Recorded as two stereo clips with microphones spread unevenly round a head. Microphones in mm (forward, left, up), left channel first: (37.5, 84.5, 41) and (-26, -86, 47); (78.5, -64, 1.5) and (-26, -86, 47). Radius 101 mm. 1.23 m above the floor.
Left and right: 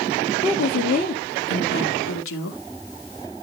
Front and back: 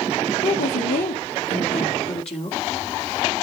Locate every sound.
0.4 s a woman speaking: 15° left, 1.8 m; by 2.6 s 70° left, 2.5 m